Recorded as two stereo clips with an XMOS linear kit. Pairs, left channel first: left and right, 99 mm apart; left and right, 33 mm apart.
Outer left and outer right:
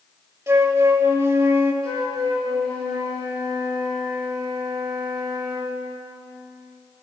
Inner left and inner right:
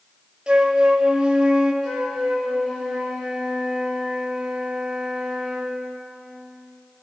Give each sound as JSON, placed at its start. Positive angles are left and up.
{"t": 0.5, "sound": "a flute", "side_deg": -25, "distance_m": 0.7}
{"t": 1.8, "sound": "a flute", "side_deg": 10, "distance_m": 4.0}